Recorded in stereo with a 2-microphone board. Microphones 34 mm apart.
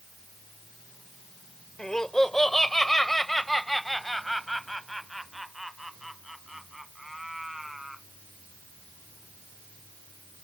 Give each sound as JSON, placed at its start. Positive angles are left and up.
{"t": 1.8, "sound": "laughter", "side_deg": 20}